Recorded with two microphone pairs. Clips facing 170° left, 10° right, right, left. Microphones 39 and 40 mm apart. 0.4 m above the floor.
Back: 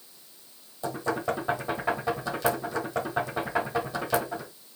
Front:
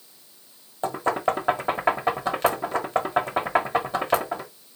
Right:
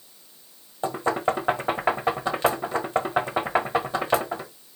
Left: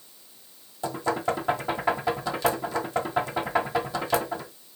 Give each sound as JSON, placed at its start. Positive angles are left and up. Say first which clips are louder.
{"t": 0.8, "sound": "knocking", "louder": "front 5 dB, right 3 dB", "azimuth_deg": -45, "distance_m": 1.4}